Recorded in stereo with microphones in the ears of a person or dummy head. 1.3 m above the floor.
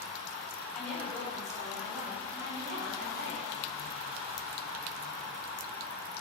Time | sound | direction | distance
0.7 | a woman speaking | 5° left (ahead or behind) | 1.8 m